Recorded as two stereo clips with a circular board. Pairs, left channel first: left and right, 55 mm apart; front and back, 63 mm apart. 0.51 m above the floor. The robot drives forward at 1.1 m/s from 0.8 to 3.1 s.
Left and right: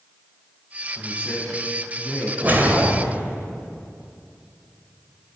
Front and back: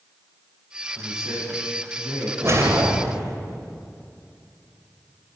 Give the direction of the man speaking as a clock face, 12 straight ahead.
5 o'clock.